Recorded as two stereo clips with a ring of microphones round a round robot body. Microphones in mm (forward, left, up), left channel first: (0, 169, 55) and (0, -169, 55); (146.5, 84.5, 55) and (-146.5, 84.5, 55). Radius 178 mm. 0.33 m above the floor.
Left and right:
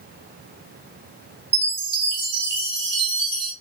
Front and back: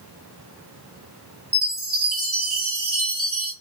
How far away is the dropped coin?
No dropped coin in this recording.